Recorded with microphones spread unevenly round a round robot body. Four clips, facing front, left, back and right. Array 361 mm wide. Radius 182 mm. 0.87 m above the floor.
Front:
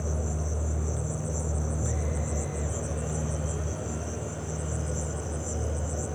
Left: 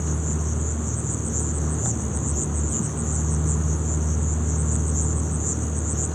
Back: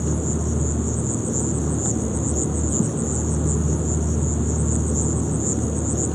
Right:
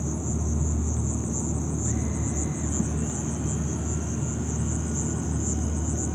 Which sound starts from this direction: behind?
An insect, at 0.0 s.